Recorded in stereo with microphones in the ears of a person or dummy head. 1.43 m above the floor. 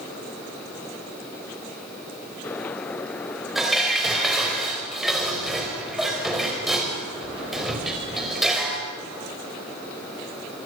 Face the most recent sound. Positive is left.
turn(degrees=0)  # may be behind; listen again after turning